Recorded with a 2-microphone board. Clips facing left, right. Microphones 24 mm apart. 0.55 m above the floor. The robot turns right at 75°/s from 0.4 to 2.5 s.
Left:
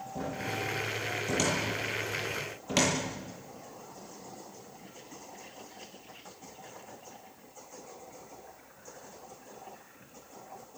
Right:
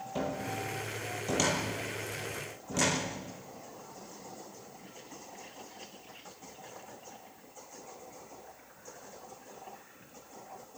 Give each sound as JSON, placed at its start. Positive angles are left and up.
{"t": 0.1, "sound": "a cupboard door", "side_deg": -80, "distance_m": 9.0}